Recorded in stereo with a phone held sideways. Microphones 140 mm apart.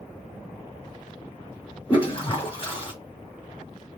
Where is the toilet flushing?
40° left (ahead or behind), 1.6 m.